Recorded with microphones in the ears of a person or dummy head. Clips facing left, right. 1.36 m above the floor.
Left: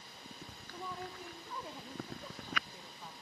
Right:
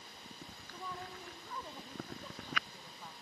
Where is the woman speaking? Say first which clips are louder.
Left 2 dB; 10° left (ahead or behind), 1.4 m.